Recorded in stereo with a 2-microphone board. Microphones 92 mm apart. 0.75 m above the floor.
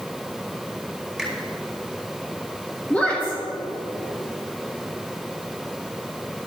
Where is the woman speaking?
20° left (ahead or behind), 1.9 m.